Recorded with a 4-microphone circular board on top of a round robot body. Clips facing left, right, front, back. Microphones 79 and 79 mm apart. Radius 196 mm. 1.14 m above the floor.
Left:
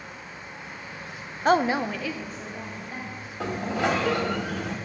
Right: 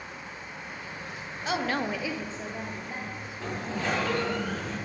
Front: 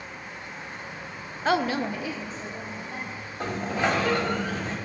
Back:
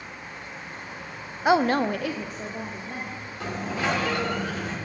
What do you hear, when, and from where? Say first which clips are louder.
1.4 s a woman speaking: left 7 dB, back 4 dB; 105° left, 0.6 m; by 3.3 s 145° right, 2 m
3.4 s a sliding door: left 6 dB, front 2 dB; 70° left, 1.0 m